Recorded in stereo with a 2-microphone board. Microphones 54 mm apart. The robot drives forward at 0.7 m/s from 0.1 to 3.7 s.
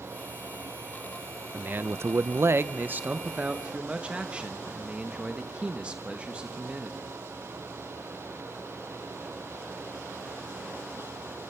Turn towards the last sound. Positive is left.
turn(degrees=-20)  # may be behind; listen again after turning